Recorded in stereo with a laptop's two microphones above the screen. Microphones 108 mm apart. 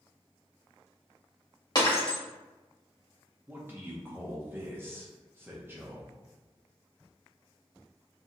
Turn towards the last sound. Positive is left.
turn(degrees=-20)  # may be behind; listen again after turning